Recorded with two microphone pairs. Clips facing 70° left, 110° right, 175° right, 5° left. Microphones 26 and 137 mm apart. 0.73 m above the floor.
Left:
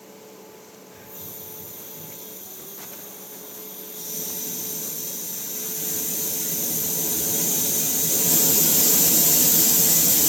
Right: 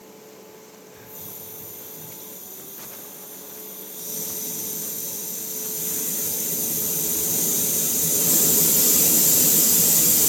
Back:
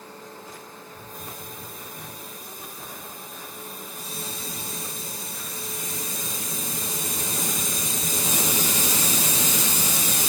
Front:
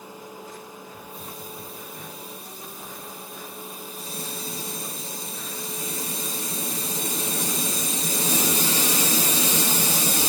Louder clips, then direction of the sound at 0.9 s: Left 1 dB, front 1 dB; 20° left.